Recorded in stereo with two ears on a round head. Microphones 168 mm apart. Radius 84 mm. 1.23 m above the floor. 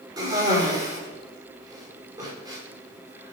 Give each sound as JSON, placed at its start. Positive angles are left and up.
{"t": 0.2, "sound": "a cough", "side_deg": -20, "distance_m": 4.5}